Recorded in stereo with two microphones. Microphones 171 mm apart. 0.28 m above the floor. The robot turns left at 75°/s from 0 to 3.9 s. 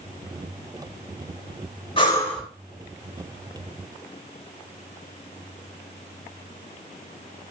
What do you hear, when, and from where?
2.0 s breathing: 35° left, 0.7 m; by 2.4 s straight ahead, 0.7 m